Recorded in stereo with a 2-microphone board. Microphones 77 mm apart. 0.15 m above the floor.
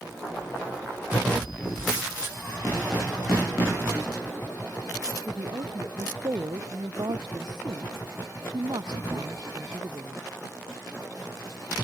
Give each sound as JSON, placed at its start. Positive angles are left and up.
{"t": 5.3, "sound": "a woman speaking", "side_deg": -70}